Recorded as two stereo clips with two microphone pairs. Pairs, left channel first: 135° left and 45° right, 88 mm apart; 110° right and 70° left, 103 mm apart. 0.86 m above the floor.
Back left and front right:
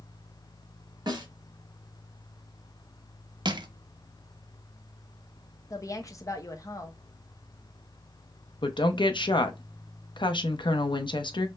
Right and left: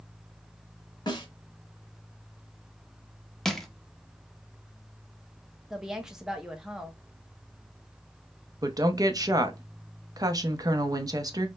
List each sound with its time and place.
1.1 s a snare drum: 70° right, 1.2 m
3.5 s crushing: 25° right, 0.6 m
5.7 s a woman speaking: 150° left, 0.7 m
8.6 s a woman speaking: 115° left, 0.6 m